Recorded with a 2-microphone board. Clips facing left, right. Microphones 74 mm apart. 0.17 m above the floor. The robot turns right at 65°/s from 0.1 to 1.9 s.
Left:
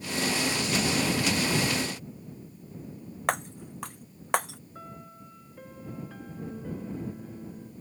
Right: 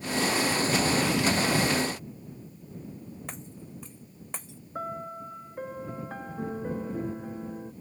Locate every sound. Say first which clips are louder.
3.3 s breaking glass: left 12 dB; 75° left (ahead or behind)
4.8 s a piano: right 11 dB; 45° right (ahead or behind)